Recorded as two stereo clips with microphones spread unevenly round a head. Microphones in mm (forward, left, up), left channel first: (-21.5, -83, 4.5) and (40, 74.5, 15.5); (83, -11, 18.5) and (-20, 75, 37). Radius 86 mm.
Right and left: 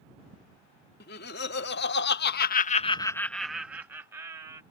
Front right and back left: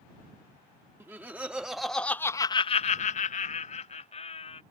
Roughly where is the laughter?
Behind right.